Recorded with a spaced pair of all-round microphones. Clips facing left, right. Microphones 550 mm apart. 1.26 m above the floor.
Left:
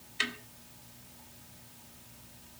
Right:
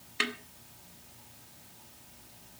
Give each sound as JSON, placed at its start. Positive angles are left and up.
{"t": 0.2, "sound": "a snare drum", "side_deg": -70, "distance_m": 2.0}